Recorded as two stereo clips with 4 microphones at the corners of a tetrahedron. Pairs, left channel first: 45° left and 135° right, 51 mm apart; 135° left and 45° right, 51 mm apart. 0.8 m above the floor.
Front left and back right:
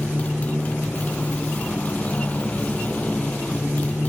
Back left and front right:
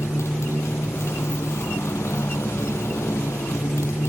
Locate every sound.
0.0 s a motorcycle: 105° left